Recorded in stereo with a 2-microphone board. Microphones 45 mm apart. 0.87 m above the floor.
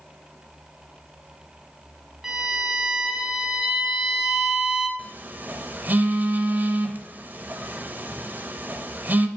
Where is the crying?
No crying in this recording.